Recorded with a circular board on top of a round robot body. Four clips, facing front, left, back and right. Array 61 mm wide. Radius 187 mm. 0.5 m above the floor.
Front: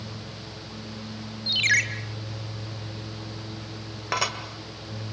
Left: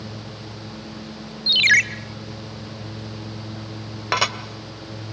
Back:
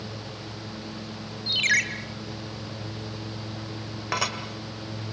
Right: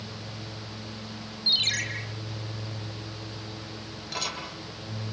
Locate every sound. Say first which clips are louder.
1.5 s a ringtone: left 16 dB, front 1 dB; 85° left, 1.1 m
4.1 s dishes clattering: left 13 dB, front 1 dB; 85° left, 2 m